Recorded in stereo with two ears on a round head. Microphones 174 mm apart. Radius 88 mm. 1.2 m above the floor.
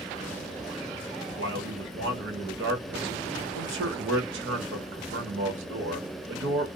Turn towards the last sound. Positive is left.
turn(degrees=-65)  # may be behind; listen again after turning